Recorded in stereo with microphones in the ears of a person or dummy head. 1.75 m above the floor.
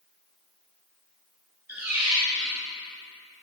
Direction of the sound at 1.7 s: 10° right (ahead or behind).